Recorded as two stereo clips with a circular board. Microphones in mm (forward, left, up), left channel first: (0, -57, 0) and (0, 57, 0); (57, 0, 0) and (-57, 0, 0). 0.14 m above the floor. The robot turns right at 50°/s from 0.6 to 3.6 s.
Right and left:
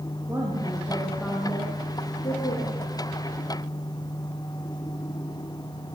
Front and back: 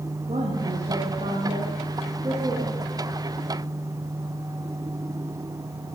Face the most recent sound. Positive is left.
turn(degrees=-55)